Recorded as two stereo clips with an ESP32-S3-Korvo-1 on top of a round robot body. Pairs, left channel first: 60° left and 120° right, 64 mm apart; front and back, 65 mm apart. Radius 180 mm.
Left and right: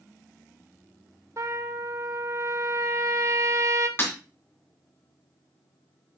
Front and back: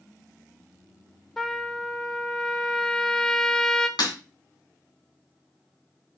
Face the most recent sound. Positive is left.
turn(degrees=5)